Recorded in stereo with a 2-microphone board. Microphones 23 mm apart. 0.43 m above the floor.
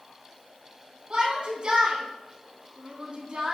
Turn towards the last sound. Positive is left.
turn(degrees=-45)  # may be behind; listen again after turning